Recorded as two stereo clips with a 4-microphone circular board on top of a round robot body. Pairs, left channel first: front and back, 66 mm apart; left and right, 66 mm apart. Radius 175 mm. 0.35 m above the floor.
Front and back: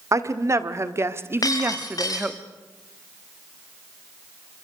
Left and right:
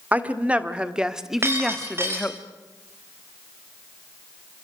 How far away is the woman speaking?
About 2.0 m.